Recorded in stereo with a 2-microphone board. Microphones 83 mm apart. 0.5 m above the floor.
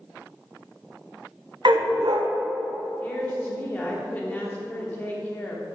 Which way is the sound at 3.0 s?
20° left (ahead or behind).